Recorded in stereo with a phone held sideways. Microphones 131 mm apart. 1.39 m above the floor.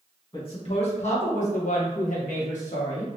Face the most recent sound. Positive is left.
turn(degrees=60)  # may be behind; listen again after turning